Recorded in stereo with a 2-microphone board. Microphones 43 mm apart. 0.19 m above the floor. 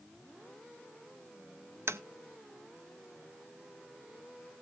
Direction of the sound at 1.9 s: 75° right (ahead or behind).